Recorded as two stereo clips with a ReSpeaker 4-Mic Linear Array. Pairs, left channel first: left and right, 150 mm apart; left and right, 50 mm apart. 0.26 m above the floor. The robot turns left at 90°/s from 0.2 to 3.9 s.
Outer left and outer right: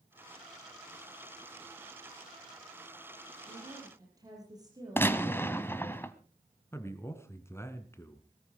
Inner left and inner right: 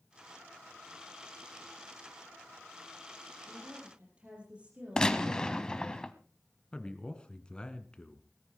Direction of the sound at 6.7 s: 15° left (ahead or behind).